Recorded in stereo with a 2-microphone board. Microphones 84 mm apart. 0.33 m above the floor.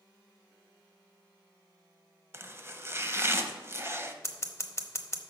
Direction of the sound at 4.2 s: 35° left (ahead or behind).